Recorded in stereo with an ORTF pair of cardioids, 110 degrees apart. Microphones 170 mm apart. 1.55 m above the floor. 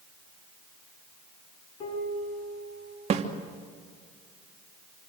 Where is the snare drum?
40° right, 2.5 m.